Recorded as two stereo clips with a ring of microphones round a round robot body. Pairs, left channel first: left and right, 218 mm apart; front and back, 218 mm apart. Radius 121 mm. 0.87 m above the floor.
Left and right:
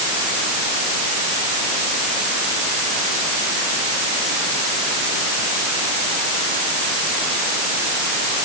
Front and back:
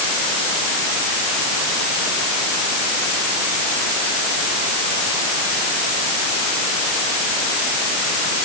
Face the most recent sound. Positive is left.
No sound to turn to.